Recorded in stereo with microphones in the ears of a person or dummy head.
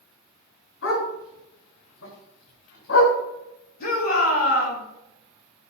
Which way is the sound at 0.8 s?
75° left (ahead or behind).